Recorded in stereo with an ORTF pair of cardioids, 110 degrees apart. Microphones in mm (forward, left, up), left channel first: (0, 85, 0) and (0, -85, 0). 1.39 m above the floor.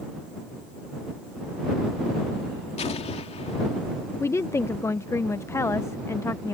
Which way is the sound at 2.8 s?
40° left.